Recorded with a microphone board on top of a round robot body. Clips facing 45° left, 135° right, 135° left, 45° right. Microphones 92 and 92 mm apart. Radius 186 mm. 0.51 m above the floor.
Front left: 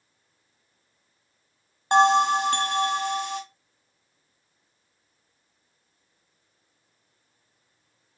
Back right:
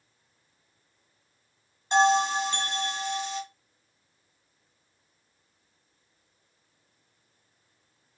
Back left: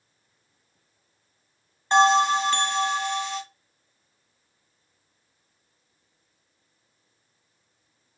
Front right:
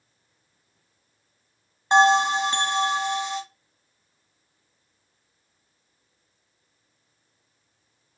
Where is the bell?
30° left, 1.2 m.